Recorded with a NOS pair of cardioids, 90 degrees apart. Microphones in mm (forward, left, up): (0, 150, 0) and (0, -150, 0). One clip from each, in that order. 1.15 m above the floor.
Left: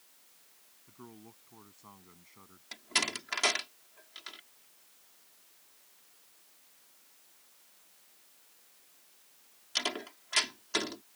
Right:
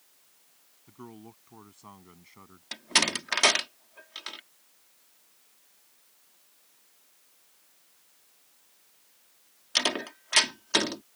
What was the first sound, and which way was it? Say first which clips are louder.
A man speaking: right 6 dB; 45° right.